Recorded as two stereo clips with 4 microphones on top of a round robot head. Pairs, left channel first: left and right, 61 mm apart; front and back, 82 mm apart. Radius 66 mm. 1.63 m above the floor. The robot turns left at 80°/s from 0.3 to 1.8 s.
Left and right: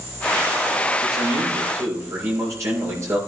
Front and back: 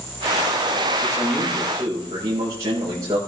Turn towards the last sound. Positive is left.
turn(degrees=-125)